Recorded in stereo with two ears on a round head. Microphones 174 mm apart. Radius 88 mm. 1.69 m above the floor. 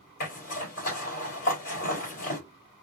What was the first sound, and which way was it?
A zipper, 45° left (ahead or behind).